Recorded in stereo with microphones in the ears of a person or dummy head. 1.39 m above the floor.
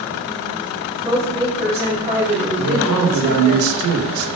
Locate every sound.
1.0 s a woman speaking: 15° right (ahead or behind), 3.5 m
2.6 s a man speaking: 85° right, 1.9 m